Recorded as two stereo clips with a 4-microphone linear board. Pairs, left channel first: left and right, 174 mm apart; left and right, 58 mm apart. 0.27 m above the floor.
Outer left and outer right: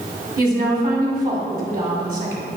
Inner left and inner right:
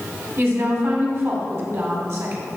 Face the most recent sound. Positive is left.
turn(degrees=-55)  # may be behind; listen again after turning